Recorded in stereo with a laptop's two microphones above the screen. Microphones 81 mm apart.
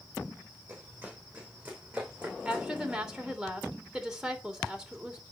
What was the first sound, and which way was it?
Running footsteps, 20° right (ahead or behind).